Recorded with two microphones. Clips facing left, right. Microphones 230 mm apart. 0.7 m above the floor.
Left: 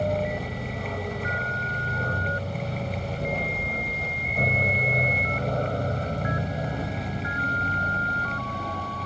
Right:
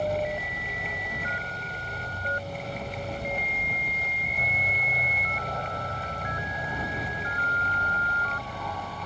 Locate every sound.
0.0 s an aircraft: 70° left (ahead or behind); by 9.1 s 30° left (ahead or behind)